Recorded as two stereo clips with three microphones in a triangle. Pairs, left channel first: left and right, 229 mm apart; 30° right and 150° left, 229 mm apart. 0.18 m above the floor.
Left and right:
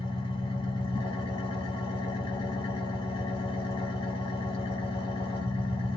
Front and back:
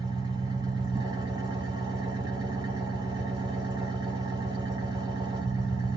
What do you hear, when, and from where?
0.0 s an engine running: 115° left, 1.3 m